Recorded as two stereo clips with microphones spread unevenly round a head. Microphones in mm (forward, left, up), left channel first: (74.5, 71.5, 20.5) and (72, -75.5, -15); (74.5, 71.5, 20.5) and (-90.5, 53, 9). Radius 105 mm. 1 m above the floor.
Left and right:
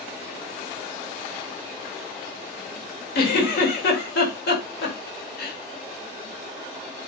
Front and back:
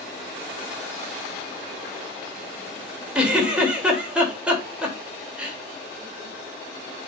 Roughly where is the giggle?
Left.